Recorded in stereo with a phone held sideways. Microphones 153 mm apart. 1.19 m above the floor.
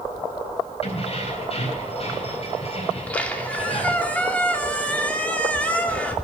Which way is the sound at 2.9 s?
10° left (ahead or behind).